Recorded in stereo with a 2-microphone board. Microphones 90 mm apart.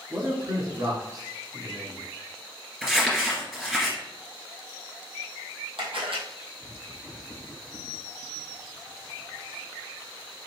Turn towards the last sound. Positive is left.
turn(degrees=-70)  # may be behind; listen again after turning